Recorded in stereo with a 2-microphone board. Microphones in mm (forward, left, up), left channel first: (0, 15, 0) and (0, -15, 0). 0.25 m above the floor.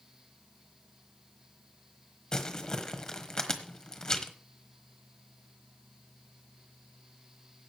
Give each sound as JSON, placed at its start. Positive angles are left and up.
{"t": 2.3, "sound": "crumpling", "side_deg": 25, "distance_m": 1.3}